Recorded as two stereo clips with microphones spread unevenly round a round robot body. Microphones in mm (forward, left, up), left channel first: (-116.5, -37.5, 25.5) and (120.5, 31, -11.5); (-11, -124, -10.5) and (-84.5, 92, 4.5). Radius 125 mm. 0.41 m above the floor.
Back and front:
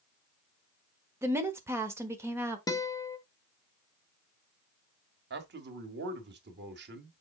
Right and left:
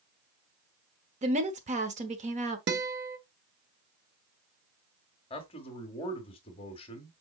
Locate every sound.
1.2 s a woman speaking: 70° left, 1.0 m
2.7 s a guitar: 120° left, 1.2 m
5.3 s a man speaking: 10° right, 1.6 m